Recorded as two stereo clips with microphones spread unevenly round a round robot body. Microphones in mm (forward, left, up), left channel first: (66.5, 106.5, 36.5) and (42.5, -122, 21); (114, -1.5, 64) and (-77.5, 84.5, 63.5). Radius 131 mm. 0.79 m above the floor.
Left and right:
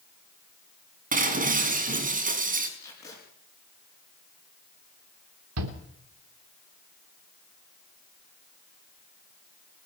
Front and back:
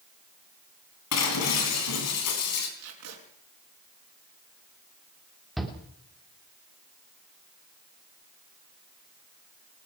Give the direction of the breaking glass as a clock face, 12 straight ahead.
1 o'clock.